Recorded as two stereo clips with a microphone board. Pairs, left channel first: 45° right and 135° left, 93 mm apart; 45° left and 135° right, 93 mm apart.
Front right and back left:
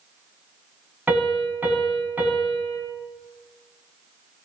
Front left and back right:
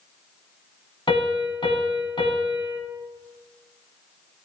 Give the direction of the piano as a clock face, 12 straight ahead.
10 o'clock.